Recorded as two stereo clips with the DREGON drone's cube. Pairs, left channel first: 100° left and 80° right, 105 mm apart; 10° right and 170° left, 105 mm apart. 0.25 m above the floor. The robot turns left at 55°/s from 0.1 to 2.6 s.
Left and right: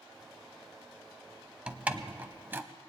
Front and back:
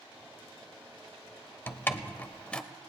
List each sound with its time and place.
1.7 s a door slam: 25° right, 0.6 m; by 2.6 s 75° right, 0.6 m